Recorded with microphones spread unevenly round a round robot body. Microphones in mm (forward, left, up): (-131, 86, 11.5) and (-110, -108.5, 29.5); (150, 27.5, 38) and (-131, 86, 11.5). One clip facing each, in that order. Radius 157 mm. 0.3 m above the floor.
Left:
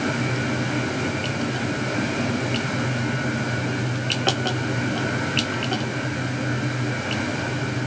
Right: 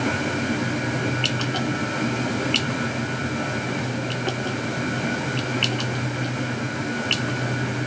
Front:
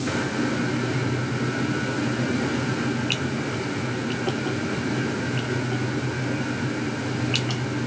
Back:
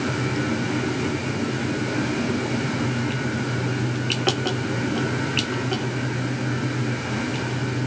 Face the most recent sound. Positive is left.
No sound to turn to.